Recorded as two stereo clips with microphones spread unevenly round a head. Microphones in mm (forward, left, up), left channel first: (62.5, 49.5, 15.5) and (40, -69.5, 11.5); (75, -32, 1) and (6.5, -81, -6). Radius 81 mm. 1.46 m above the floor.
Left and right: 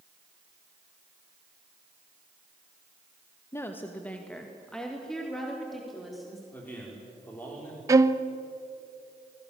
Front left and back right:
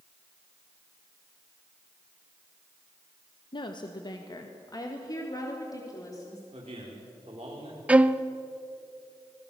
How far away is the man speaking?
About 5 m.